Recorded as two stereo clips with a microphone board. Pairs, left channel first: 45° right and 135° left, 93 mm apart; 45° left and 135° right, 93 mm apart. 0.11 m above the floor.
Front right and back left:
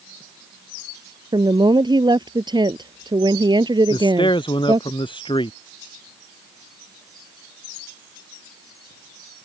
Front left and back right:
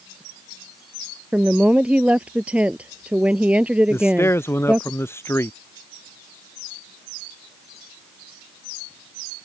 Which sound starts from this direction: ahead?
A man speaking, at 3.9 s.